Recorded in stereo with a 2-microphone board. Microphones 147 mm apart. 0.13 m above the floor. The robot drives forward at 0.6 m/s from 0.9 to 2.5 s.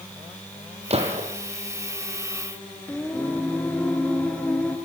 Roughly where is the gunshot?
Right.